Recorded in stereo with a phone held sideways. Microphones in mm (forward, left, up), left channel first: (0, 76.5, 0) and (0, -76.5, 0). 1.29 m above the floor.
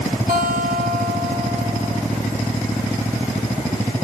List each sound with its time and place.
0.3 s a guitar: 75° right (ahead or behind), 3 m